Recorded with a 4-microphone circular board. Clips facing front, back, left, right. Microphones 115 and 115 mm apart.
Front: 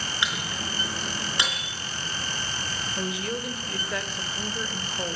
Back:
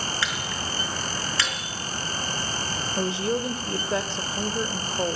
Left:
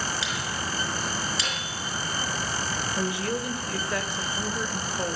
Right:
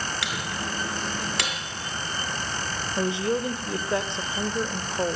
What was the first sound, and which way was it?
A microwave, 70° right.